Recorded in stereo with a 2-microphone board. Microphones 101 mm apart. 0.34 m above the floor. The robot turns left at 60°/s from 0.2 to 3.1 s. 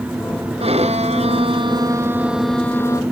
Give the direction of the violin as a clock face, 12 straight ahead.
2 o'clock.